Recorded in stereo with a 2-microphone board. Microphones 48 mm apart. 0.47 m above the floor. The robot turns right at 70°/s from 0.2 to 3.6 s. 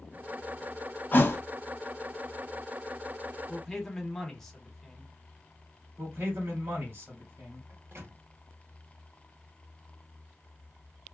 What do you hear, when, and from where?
1.1 s a thud: 40° left (ahead or behind), 0.6 m; by 1.4 s 60° left (ahead or behind), 0.6 m
3.5 s a man speaking: 5° left (ahead or behind), 1.0 m; by 5.1 s 10° left (ahead or behind), 1.0 m
6.0 s a man speaking: 45° right (ahead or behind), 1.4 m
7.7 s a microwave: 45° right (ahead or behind), 0.9 m